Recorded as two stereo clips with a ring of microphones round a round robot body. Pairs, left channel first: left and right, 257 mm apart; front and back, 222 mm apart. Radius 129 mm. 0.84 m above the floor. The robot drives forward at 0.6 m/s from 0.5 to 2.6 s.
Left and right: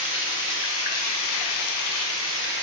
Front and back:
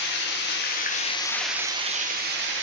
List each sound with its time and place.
0.0 s running water: 40° left, 0.8 m; by 2.6 s 140° left, 0.9 m